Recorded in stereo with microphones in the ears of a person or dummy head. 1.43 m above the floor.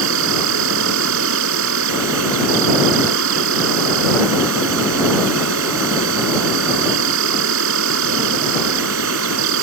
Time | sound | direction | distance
0.0 | an insect | 70° right (ahead or behind) | ?